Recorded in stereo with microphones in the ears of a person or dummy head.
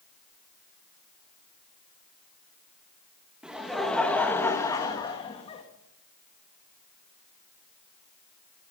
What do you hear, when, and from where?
3.4 s laughter: 5° right (ahead or behind), 2.5 m; by 5.6 s 30° left (ahead or behind), 3 m